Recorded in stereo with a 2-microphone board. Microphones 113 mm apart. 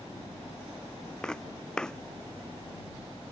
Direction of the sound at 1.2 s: 10° left (ahead or behind).